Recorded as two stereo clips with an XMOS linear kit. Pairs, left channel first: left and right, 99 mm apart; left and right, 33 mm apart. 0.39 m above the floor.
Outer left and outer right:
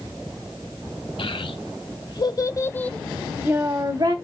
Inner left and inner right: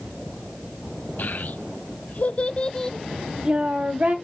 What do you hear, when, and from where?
1.2 s a child speaking: 65° left (ahead or behind), 2 m; by 4.2 s 50° right (ahead or behind), 1.4 m